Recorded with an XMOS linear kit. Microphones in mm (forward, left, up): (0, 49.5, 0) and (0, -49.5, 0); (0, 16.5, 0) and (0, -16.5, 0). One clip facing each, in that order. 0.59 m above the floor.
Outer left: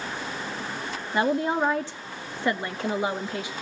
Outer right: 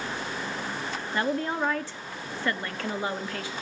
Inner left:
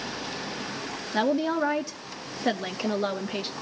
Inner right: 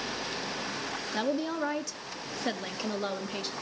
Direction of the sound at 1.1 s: 20° left (ahead or behind).